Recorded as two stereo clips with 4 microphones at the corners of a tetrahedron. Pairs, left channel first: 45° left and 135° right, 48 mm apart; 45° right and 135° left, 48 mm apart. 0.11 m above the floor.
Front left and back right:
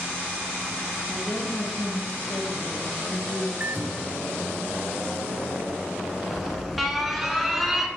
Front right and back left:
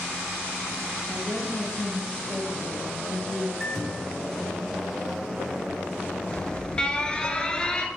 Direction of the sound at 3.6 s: 120° right.